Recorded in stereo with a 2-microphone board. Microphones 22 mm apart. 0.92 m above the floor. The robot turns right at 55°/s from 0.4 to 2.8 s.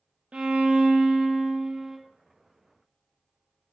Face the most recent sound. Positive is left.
turn(degrees=30)